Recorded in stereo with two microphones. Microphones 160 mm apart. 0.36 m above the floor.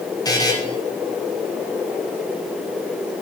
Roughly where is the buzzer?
Left.